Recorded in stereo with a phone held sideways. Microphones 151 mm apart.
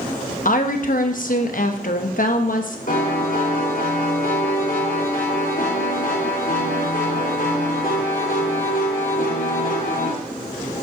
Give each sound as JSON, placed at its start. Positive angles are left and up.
{"t": 0.5, "sound": "a woman speaking", "side_deg": 65, "distance_m": 1.1}
{"t": 2.9, "sound": "a piano", "side_deg": 70, "distance_m": 2.5}